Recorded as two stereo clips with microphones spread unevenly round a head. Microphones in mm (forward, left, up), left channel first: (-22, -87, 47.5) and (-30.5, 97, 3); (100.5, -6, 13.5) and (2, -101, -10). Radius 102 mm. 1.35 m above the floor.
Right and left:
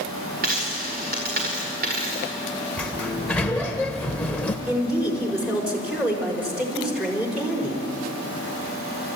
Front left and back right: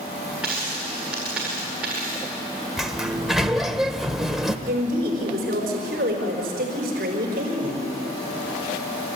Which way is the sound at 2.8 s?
30° right.